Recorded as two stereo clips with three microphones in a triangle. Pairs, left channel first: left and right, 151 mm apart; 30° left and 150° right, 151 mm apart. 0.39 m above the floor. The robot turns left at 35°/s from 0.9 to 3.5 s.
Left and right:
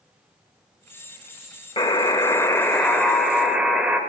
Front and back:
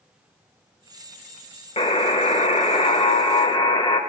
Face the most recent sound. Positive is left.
turn(degrees=-10)